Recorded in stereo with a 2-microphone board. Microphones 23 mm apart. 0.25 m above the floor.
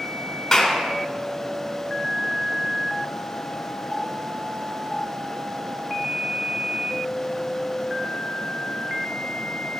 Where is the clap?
10° left (ahead or behind), 2 m.